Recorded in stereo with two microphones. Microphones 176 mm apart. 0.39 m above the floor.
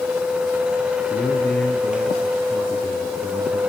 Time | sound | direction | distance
1.1 | a man speaking | centre (ahead or behind) | 5 m